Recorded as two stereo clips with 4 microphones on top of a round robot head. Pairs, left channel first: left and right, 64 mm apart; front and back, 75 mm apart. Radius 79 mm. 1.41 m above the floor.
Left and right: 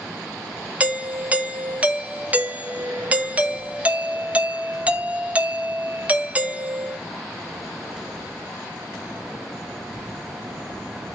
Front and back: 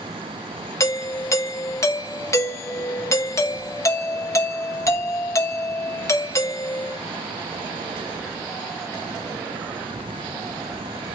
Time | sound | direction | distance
0.8 | a doorbell | 30° right | 1.1 m